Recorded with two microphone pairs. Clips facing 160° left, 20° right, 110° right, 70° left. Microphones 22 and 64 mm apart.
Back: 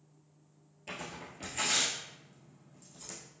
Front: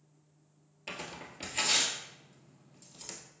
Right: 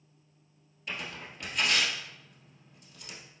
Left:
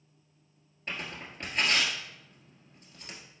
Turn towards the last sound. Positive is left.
turn(degrees=30)